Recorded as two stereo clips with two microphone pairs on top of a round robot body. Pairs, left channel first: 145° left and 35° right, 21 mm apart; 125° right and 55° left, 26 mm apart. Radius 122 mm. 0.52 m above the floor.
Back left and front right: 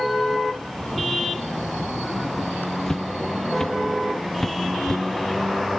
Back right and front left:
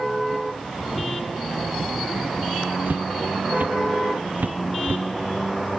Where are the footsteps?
70° left; by 5.0 s 65° left.